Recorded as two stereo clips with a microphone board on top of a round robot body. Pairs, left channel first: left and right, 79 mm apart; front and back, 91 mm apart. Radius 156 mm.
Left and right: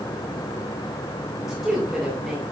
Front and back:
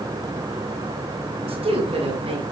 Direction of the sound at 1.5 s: Straight behind.